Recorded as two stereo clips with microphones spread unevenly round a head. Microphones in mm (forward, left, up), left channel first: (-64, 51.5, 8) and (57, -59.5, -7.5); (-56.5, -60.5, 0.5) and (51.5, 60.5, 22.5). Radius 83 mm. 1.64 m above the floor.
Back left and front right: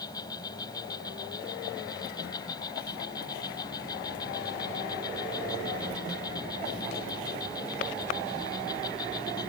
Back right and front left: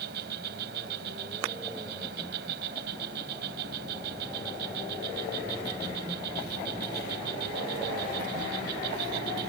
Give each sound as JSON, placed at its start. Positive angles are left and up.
{"t": 0.0, "sound": "an insect", "azimuth_deg": 70}